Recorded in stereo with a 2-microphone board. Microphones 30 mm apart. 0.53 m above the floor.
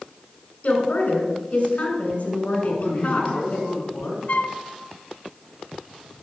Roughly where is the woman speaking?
Left.